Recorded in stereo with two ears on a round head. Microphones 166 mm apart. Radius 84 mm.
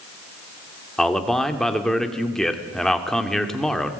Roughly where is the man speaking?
Centre.